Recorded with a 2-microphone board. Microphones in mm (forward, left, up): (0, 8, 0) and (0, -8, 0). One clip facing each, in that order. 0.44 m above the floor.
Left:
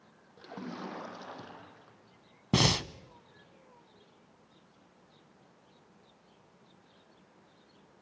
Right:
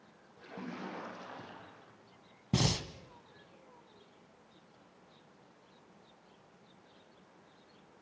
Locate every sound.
0.4 s a splash: 55° left (ahead or behind), 5.5 m
2.5 s breathing: 60° left (ahead or behind), 0.6 m